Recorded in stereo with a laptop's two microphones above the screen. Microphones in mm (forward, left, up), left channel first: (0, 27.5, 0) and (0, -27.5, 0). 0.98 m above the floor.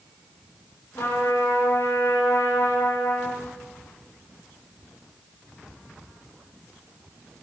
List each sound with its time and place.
0.9 s a trumpet: 85° left, 9.5 m